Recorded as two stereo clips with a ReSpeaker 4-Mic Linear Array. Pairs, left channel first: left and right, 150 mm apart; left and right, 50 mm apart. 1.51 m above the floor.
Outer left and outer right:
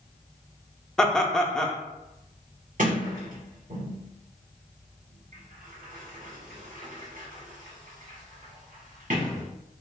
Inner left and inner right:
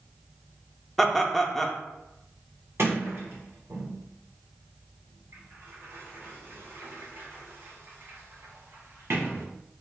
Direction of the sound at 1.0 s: 5° left (ahead or behind).